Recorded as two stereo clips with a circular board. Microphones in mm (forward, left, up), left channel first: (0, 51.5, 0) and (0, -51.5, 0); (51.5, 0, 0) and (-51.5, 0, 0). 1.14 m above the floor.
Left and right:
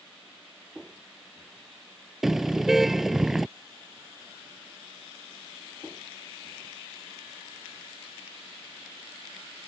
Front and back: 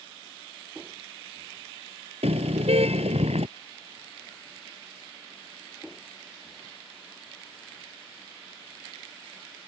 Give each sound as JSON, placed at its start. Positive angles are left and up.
{"t": 2.2, "sound": "a car horn", "azimuth_deg": 180}